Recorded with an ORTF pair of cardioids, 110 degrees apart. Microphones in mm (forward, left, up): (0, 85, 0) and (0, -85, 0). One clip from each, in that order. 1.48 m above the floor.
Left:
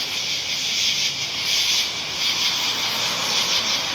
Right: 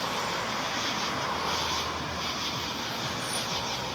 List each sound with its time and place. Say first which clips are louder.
0.0 s an insect: left 5 dB; 65° left